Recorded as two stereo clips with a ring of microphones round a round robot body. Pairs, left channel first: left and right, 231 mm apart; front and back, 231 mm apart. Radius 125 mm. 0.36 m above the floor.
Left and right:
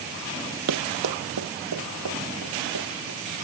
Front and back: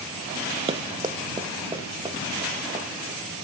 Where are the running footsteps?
115° right, 0.8 m; by 3.2 s 105° right, 4.5 m.